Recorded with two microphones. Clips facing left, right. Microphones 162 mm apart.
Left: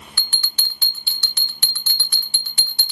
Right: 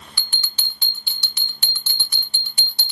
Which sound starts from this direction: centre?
A bell, at 0.2 s.